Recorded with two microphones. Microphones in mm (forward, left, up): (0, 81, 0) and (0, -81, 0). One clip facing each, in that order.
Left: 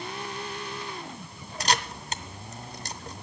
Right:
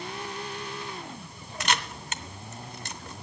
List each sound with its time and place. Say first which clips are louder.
1.6 s a camera shutter: left 2 dB; 35° left (ahead or behind), 0.6 m